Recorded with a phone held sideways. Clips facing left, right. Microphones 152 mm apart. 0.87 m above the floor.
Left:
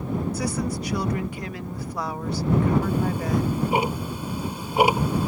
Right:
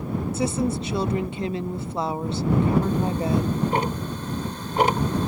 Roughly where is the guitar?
I don't hear a guitar.